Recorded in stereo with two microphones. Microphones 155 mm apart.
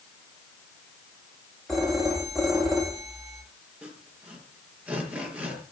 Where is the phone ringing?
Centre (ahead or behind), 9.5 m.